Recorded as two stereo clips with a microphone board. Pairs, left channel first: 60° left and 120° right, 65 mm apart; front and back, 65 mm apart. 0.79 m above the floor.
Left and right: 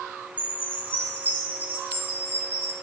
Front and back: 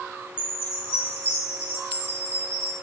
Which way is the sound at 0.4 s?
55° right.